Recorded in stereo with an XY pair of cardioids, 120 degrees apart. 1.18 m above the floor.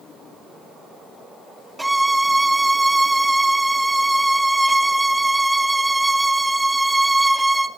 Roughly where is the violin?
Ahead.